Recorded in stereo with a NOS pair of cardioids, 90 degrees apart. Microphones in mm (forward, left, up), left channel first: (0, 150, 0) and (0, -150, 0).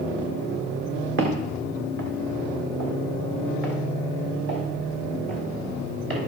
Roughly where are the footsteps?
Ahead right.